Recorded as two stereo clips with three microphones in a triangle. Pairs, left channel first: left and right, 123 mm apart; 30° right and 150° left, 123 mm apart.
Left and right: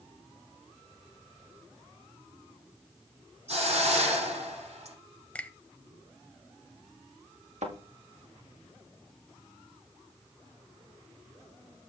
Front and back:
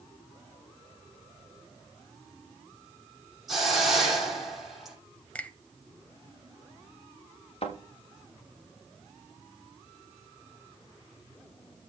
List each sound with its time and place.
3.5 s a hiss: 120° right, 8 m
5.3 s a finger snap: 30° left, 0.8 m
7.6 s a thud: 70° right, 5 m